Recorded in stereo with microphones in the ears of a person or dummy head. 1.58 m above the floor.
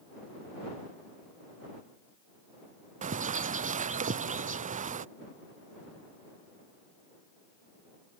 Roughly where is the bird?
Right.